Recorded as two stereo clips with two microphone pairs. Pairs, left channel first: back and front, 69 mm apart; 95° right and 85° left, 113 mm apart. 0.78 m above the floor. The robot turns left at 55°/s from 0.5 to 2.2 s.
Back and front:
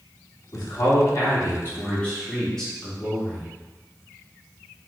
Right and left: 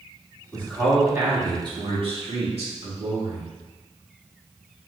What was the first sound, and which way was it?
A man speaking, 170° right.